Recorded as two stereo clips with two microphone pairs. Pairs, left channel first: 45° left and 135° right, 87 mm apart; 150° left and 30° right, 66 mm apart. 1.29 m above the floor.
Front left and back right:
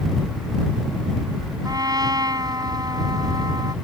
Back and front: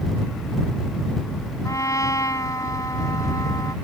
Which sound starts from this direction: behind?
A trumpet, at 1.6 s.